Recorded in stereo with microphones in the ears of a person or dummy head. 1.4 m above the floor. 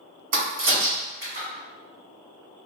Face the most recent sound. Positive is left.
turn(degrees=-45)  # may be behind; listen again after turning